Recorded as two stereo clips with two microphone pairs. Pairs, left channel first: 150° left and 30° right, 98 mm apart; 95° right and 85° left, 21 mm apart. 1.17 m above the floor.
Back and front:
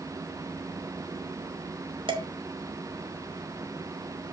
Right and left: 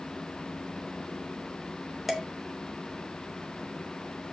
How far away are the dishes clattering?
About 2.5 m.